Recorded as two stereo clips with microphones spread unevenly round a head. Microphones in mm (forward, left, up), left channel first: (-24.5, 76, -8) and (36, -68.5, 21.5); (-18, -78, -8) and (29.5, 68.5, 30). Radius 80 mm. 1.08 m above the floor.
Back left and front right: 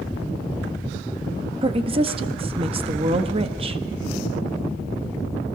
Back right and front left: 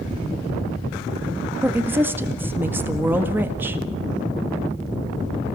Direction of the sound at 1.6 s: 10° right.